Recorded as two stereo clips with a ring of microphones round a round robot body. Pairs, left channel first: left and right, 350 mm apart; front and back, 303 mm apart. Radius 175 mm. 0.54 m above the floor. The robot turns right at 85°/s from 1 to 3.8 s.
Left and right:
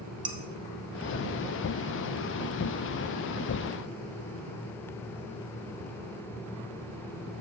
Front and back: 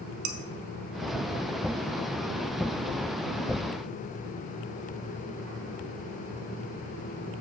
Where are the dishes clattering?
165° right, 0.8 m.